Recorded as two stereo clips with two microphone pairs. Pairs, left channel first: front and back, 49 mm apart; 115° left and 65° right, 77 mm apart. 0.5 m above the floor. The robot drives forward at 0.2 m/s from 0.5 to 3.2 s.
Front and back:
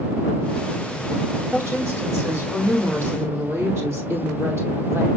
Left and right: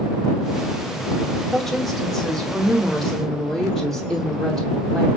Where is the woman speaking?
155° right, 2.5 m; by 5.1 s 160° right, 2.5 m.